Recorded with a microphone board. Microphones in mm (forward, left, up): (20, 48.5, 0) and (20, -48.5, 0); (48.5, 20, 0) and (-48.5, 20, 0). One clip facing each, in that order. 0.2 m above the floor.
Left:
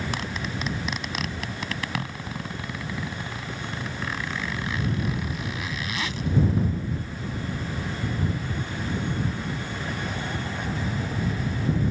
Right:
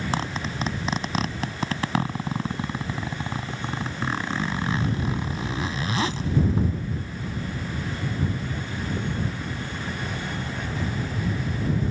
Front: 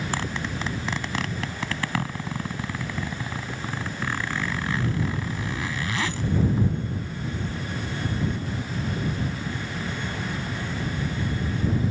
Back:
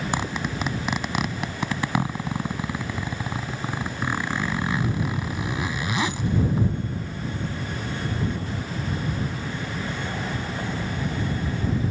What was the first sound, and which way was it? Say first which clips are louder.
A zipper: right 3 dB, back 2 dB; 120° right.